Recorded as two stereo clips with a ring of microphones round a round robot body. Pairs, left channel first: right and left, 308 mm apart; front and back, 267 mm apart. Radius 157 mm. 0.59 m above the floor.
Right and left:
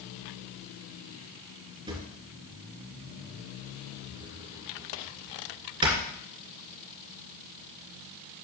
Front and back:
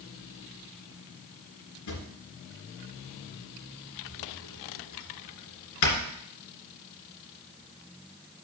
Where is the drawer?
15° left, 2.5 m.